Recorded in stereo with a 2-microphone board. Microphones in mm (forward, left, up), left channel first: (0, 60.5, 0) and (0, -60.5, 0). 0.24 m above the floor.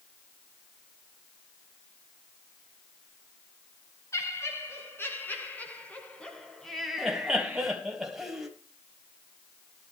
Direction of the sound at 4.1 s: 25° left (ahead or behind).